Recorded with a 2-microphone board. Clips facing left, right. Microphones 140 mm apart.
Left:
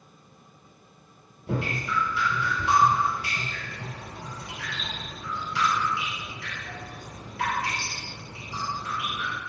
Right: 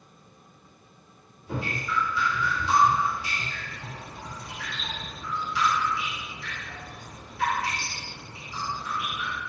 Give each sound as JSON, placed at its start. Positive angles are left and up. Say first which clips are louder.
{"t": 1.5, "sound": "dripping", "louder": "left 2 dB", "side_deg": 80, "distance_m": 0.8}